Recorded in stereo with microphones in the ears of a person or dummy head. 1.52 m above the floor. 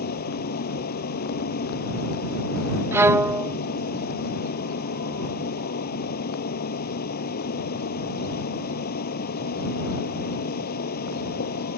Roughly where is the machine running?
Left.